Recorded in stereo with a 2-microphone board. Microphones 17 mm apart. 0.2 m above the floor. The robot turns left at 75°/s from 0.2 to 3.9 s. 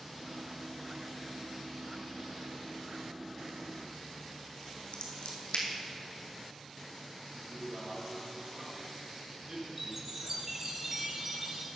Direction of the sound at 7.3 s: 30° right (ahead or behind).